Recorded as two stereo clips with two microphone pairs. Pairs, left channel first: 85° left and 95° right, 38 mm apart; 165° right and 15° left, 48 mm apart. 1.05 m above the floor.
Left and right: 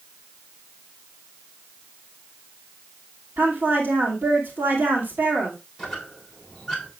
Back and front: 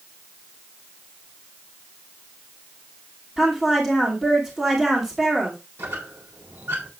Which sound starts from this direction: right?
A woman speaking, at 3.4 s.